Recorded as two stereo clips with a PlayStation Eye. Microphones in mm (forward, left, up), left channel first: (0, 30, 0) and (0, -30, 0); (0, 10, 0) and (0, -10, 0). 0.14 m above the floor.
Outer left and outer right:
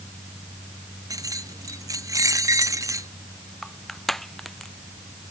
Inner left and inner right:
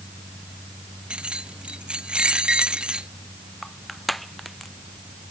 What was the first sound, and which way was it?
Keys jangling, 65° right (ahead or behind).